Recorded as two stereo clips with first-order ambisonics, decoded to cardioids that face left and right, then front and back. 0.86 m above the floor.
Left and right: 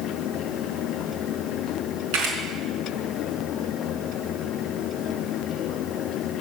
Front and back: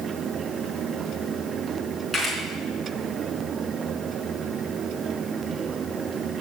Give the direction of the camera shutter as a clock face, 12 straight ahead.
3 o'clock.